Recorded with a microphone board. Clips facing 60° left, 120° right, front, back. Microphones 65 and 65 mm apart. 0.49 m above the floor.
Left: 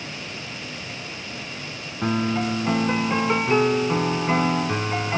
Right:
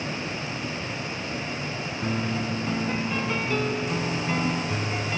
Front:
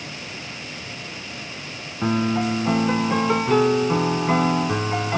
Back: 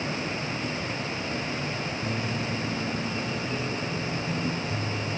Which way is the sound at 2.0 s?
5° left.